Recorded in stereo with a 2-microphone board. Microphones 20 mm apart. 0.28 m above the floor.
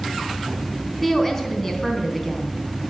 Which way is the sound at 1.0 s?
20° left (ahead or behind).